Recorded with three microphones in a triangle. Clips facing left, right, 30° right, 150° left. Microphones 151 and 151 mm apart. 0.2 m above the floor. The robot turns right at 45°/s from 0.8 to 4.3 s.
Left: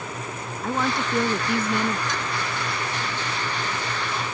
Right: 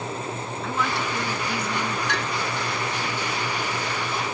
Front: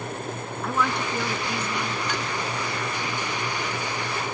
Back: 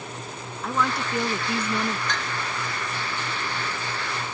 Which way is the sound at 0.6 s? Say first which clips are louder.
Left 3 dB, even; 60° left.